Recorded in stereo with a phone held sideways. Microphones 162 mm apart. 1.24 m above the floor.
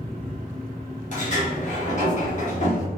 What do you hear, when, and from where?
0.0 s a fan: 60° right (ahead or behind), 1.0 m
1.1 s a sliding door: 50° left (ahead or behind), 0.8 m